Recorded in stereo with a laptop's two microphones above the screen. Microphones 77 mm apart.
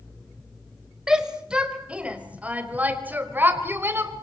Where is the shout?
10° right (ahead or behind), 4.5 m; by 4.1 s 30° right (ahead or behind), 4.5 m.